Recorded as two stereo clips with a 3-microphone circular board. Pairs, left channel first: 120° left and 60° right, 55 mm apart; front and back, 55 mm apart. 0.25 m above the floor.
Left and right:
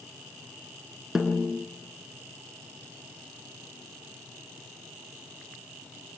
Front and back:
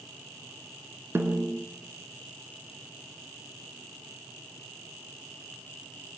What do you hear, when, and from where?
1.1 s a snare drum: 140° right, 3 m